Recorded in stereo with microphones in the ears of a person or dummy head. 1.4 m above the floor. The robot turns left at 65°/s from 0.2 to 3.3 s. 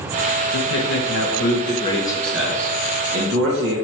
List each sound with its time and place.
0.5 s a man speaking: 115° left, 1.2 m; by 3.8 s 65° right, 1.2 m